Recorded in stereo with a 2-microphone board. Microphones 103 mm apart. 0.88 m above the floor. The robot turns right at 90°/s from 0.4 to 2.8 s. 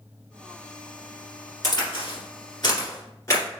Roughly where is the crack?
Left.